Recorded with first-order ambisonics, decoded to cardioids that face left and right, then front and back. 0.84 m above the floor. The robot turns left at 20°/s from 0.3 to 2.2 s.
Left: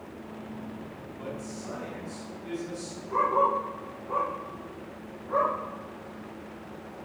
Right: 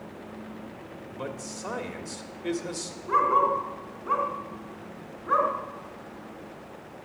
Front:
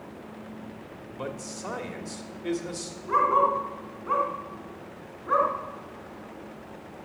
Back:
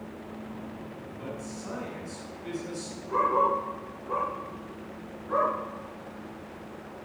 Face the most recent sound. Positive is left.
turn(degrees=-50)